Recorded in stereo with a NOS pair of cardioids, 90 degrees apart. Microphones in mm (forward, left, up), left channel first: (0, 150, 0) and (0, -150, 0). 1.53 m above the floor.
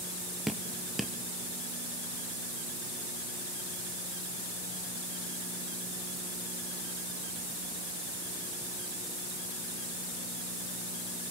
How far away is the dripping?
About 1.1 m.